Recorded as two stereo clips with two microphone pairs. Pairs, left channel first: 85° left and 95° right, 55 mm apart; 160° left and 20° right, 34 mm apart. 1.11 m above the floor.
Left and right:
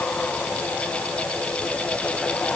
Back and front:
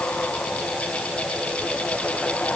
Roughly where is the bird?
I don't hear a bird.